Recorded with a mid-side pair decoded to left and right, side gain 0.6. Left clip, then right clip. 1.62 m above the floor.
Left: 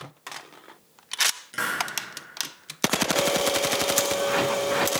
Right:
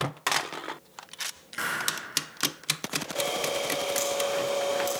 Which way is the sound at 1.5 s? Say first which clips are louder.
Left 2 dB; 25° left.